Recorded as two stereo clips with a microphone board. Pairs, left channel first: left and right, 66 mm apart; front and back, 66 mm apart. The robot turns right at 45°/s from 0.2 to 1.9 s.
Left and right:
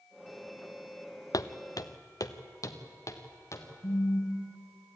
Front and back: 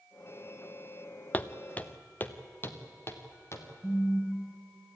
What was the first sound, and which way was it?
Footsteps, 65° left.